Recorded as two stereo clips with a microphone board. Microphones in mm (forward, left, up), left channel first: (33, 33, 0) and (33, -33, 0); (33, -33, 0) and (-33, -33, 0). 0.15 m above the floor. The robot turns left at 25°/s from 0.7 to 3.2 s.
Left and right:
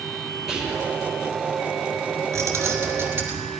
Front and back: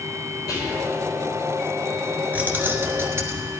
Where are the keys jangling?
120° right, 1.4 m; by 3.5 s 140° right, 1.4 m.